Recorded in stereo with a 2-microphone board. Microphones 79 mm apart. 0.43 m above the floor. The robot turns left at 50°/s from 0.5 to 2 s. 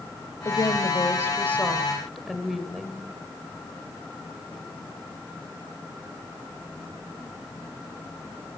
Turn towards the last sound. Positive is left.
turn(degrees=0)